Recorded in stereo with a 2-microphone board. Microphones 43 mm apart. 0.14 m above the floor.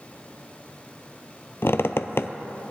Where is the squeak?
70° left (ahead or behind), 0.5 m.